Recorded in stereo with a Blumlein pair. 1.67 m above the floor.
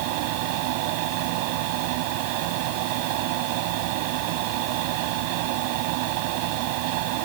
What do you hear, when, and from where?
0.0 s a fan: 45° right